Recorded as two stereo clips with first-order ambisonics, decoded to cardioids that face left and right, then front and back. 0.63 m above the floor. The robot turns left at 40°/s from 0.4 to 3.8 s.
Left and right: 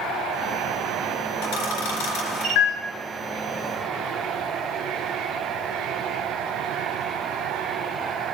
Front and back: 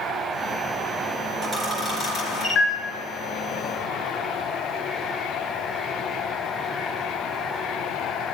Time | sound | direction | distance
1.4 | a camera shutter | 105° left | 3 m